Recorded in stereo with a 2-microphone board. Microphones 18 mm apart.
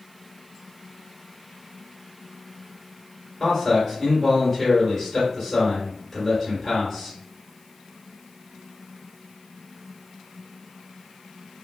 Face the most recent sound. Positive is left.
turn(degrees=10)  # may be behind; listen again after turning